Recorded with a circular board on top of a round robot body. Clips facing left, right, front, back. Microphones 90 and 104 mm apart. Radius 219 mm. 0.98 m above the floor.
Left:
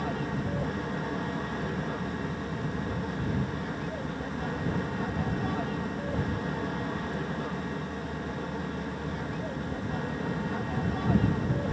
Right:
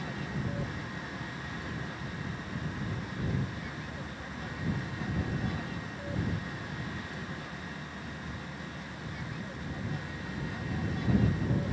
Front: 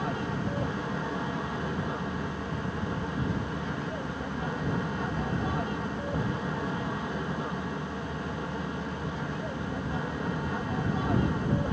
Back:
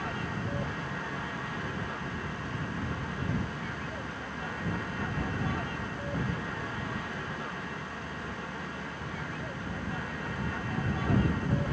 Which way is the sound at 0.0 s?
65° left.